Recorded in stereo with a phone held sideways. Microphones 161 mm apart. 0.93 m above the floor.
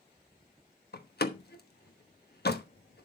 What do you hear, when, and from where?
0.9 s a door slam: 70° left (ahead or behind), 1.1 m